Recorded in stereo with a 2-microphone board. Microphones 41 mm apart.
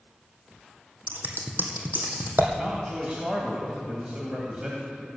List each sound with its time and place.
1.1 s scissors: 55° right (ahead or behind), 2 m
2.6 s a man speaking: 25° right (ahead or behind), 1.9 m